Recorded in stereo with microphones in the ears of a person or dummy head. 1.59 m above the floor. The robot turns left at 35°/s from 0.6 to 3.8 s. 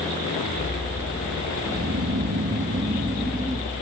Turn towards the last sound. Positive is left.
turn(degrees=175)